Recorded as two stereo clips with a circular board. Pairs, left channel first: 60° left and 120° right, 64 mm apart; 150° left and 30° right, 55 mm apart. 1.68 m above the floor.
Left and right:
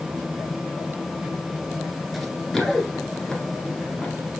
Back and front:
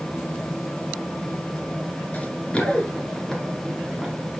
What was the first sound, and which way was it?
Running footsteps, 150° left.